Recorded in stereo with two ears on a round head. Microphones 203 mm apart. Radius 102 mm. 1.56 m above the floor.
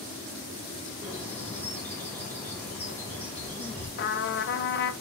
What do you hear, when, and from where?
1.0 s a bird: 10° left (ahead or behind), 3.5 m
4.0 s a trumpet: 50° left (ahead or behind), 0.9 m